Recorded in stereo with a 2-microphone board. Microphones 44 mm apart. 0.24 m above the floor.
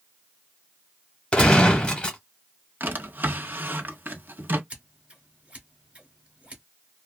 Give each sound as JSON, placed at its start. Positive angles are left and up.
{"t": 1.3, "sound": "a gunshot", "side_deg": 20, "distance_m": 1.0}
{"t": 2.8, "sound": "a drawer", "side_deg": -50, "distance_m": 0.8}
{"t": 4.7, "sound": "scissors", "side_deg": -30, "distance_m": 1.3}